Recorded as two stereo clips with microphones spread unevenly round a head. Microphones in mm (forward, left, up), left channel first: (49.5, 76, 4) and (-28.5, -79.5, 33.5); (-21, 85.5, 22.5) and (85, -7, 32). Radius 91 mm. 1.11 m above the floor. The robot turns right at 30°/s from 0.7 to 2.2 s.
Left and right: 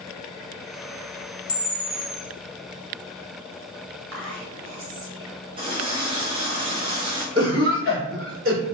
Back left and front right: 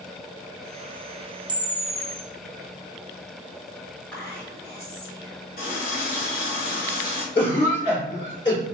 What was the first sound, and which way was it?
A camera shutter, 15° left.